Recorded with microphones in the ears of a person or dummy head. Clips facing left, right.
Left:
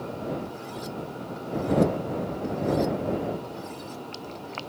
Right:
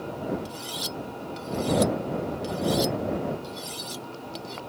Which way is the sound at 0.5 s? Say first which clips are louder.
Left 1 dB; 45° right (ahead or behind).